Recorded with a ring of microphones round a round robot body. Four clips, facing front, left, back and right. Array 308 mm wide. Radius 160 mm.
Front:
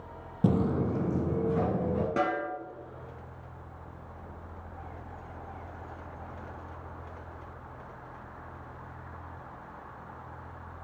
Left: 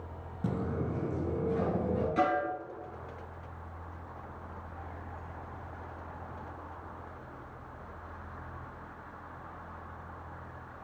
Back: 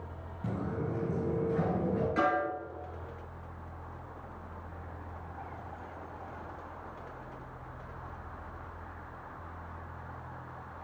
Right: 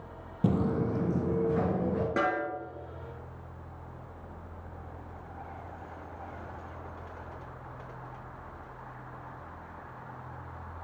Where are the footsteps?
25° right, 0.5 m; by 2.1 s 40° right, 2.5 m.